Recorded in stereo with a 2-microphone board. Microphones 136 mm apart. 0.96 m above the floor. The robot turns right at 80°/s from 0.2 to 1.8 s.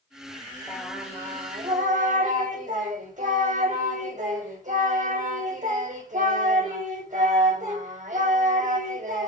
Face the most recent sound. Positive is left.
turn(degrees=-110)